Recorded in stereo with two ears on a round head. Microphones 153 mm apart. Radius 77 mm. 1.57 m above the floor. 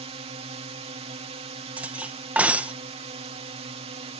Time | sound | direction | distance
0.0 | a drone | 35° right (ahead or behind) | ?
1.8 | cutlery clinking | 10° right (ahead or behind) | ?